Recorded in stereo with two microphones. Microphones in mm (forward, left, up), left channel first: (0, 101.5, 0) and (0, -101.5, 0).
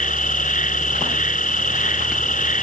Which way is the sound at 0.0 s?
40° left (ahead or behind).